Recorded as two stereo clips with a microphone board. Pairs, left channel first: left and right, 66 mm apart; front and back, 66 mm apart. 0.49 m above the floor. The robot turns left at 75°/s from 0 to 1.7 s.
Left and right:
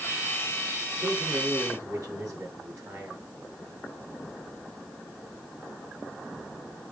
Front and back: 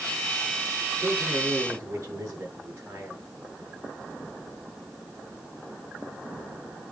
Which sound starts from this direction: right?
A man speaking, at 1.0 s.